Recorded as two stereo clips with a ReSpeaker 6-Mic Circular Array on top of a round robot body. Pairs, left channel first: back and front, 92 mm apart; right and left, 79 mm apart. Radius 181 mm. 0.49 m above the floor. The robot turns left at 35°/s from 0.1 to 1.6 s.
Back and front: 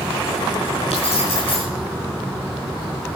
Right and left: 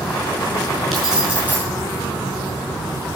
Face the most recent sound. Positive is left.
turn(degrees=155)